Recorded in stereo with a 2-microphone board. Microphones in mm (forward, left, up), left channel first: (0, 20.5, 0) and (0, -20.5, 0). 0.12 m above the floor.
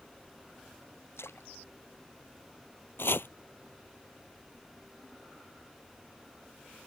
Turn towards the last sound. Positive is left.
turn(degrees=65)  # may be behind; listen again after turning